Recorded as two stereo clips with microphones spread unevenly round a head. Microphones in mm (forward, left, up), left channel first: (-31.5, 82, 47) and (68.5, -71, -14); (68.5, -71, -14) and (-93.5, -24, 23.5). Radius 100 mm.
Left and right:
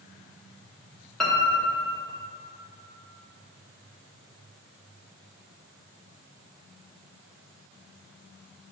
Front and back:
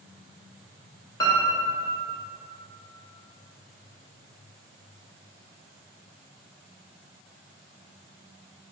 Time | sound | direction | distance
1.2 | a piano | 65° left | 0.6 m